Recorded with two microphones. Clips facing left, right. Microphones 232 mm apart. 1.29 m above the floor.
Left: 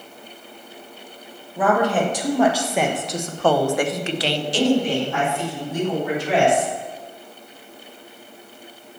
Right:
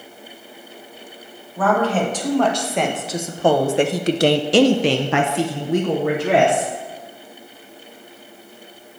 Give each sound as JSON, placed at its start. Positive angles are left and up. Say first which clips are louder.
{"t": 1.6, "sound": "a woman speaking", "louder": "even", "side_deg": 15, "distance_m": 1.6}